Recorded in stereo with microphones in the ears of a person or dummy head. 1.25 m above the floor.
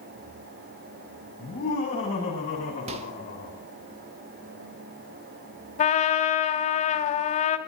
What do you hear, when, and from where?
1.4 s laughter: 30° left (ahead or behind), 8 m; by 3.6 s 35° left (ahead or behind), 10.5 m
2.9 s a microwave: 35° right (ahead or behind), 1.9 m
5.8 s a trumpet: 35° left (ahead or behind), 1.7 m